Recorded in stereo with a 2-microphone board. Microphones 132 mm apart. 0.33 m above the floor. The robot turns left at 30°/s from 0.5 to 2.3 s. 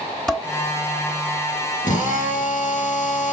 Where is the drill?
75° left (ahead or behind), 2.5 m; by 3.3 s 85° left, 2.5 m.